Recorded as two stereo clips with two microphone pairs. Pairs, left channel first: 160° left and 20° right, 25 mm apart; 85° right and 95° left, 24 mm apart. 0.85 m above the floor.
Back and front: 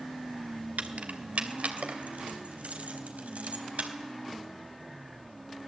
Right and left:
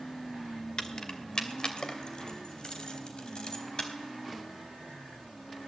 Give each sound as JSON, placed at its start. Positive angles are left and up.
{"t": 0.8, "sound": "keys jangling", "azimuth_deg": -30, "distance_m": 2.0}